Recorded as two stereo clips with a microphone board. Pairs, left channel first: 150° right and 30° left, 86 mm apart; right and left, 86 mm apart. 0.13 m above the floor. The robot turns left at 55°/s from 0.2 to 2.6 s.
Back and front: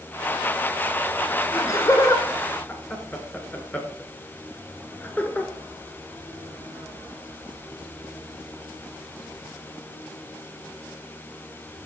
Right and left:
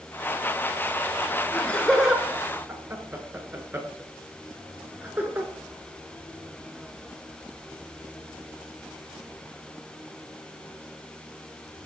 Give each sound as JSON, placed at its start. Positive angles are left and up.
{"t": 1.5, "sound": "laughter", "azimuth_deg": -155, "distance_m": 1.4}